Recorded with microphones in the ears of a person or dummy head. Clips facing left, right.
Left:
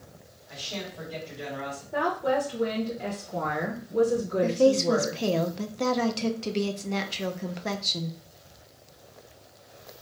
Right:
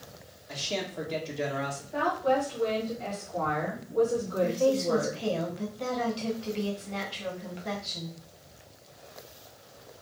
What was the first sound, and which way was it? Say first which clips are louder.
A man speaking: right 4 dB; 80° right.